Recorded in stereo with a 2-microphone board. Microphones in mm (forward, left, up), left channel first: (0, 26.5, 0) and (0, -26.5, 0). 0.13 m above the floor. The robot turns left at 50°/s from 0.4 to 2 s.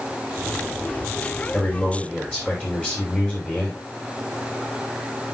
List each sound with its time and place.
1.5 s a man speaking: 45° left (ahead or behind), 5.5 m; by 3.8 s 20° left (ahead or behind), 5.5 m